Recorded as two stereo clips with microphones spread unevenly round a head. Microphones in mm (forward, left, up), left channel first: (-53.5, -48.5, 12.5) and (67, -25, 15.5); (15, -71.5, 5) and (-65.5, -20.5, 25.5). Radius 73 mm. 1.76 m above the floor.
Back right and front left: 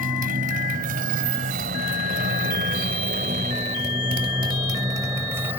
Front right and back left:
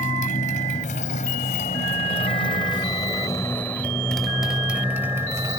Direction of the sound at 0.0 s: Straight ahead.